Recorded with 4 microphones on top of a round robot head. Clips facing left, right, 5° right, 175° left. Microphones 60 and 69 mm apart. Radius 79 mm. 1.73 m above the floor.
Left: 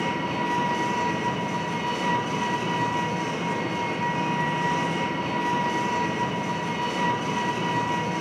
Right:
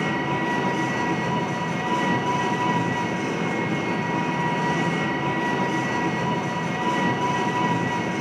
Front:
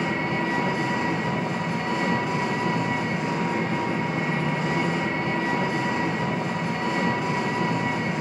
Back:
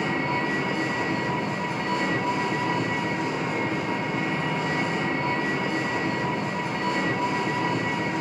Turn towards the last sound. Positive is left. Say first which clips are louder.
# right 2 dB, even
turn(degrees=-80)